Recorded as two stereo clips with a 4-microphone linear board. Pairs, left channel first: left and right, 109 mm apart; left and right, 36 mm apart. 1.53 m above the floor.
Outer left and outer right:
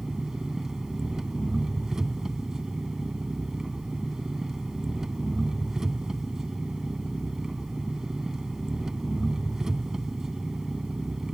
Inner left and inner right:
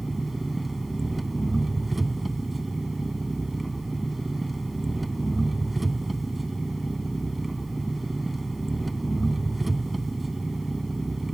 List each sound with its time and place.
0.0 s an engine running: 5° right (ahead or behind)